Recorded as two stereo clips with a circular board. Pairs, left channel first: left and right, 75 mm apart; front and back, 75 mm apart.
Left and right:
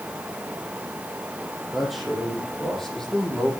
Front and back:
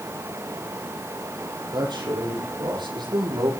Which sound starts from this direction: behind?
A man speaking, at 1.7 s.